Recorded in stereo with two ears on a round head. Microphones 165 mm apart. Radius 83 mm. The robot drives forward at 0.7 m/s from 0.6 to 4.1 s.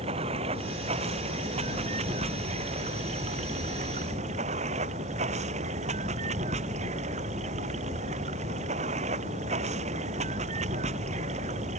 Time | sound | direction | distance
0.0 | running water | 35° right (ahead or behind) | ?